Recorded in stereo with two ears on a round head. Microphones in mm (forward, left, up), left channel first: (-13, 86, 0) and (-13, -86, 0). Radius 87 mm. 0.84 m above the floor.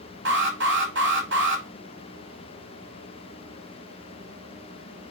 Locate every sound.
0.2 s an alarm: 65° right (ahead or behind), 4 m